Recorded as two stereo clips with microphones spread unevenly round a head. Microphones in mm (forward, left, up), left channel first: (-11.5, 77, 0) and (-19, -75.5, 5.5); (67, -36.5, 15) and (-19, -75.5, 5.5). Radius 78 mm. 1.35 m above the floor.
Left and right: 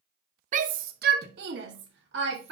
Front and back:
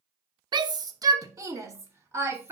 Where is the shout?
130° right, 0.8 m; by 2.5 s 95° right, 2.0 m.